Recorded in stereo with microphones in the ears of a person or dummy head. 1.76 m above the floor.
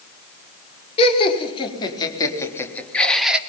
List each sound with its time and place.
1.0 s laughter: 35° left (ahead or behind), 5.5 m; by 3.4 s 5° right (ahead or behind), 3 m